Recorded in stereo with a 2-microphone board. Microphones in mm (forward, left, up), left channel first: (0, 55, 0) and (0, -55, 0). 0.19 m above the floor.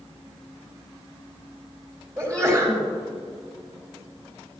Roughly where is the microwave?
I don't hear a microwave.